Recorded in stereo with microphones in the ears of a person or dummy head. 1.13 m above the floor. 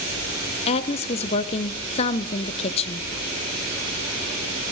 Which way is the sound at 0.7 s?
40° left (ahead or behind).